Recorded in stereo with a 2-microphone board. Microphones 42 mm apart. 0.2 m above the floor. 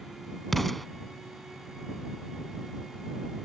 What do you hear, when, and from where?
0.5 s an explosion: 5° left (ahead or behind)